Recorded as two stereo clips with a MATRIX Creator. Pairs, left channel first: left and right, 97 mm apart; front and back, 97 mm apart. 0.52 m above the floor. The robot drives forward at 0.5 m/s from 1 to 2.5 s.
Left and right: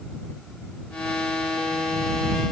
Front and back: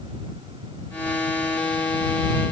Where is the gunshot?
I don't hear a gunshot.